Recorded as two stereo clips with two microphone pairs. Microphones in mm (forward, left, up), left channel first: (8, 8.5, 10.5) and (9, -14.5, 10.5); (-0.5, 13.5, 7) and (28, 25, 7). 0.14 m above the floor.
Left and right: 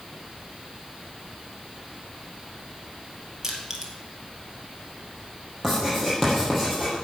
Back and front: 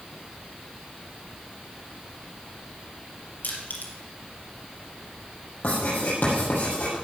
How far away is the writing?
About 6.5 m.